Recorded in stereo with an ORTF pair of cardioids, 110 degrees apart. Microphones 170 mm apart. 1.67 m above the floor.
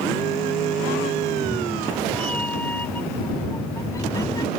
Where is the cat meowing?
5° left; by 4.5 s 25° left.